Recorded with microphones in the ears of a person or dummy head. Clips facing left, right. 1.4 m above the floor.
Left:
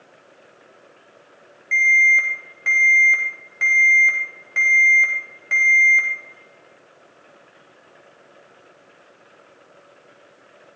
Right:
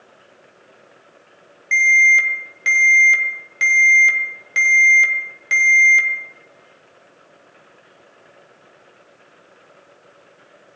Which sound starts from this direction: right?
An alarm, at 1.7 s.